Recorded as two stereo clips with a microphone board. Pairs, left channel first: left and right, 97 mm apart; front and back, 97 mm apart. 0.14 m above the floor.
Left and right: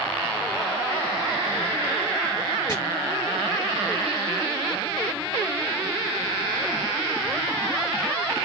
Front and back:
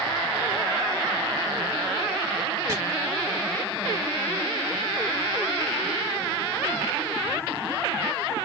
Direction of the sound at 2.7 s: 135° left.